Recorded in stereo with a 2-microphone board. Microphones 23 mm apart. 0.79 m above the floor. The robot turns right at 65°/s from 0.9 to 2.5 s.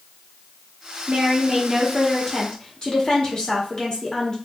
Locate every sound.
1.1 s a woman speaking: 55° right, 1.6 m; by 4.3 s 40° left, 1.6 m